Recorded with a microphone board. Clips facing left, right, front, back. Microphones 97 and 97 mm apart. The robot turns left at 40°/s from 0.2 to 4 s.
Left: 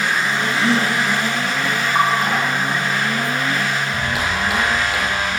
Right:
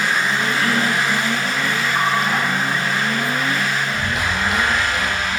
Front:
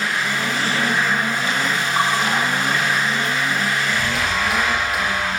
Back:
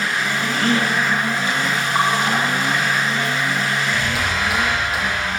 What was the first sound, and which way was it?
A gasp, 160° left.